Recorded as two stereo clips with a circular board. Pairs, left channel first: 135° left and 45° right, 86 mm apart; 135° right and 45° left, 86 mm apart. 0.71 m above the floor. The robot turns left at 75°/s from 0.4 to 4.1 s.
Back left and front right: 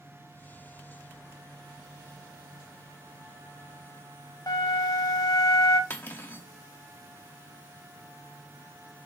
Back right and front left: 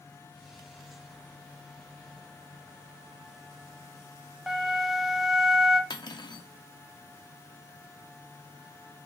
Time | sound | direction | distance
4.5 | a flute | 130° left | 0.6 m
5.9 | cutlery clinking | 160° right | 0.5 m